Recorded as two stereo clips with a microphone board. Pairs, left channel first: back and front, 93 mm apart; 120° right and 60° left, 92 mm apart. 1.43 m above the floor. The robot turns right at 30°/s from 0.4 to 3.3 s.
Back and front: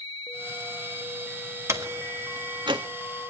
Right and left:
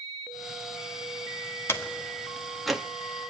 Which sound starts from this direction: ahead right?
A door slam, at 1.7 s.